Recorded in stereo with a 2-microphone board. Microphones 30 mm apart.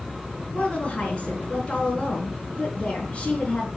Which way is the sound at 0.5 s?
45° left (ahead or behind).